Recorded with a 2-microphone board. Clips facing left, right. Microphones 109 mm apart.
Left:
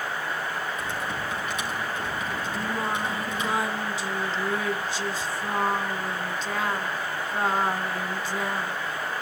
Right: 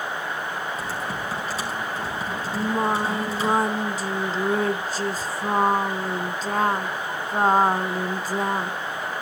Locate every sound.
0.8 s typing on a keyboard: 35° right (ahead or behind), 5 m
2.5 s singing: 45° right (ahead or behind), 0.9 m